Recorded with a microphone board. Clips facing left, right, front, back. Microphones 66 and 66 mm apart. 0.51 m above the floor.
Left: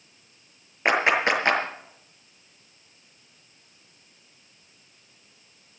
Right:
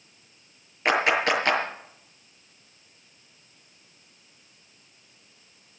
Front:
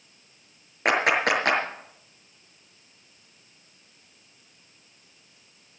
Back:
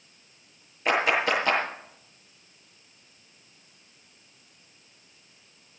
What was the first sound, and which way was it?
A clap, 25° left.